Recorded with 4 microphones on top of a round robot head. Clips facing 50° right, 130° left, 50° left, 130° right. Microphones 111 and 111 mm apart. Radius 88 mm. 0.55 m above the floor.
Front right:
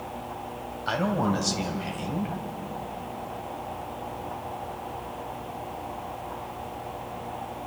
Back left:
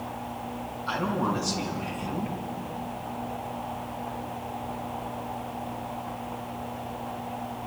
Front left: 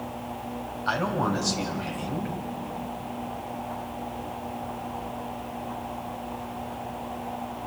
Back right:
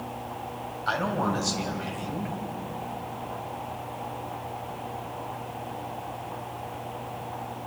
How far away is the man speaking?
About 3 m.